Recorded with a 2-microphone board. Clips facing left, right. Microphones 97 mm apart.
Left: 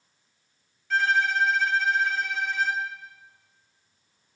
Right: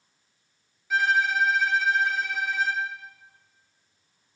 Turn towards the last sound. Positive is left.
turn(degrees=-10)  # may be behind; listen again after turning